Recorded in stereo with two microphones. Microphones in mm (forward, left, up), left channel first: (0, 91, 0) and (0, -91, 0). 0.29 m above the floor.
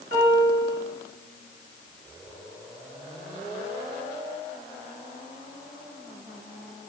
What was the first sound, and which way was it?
A piano, 65° right (ahead or behind).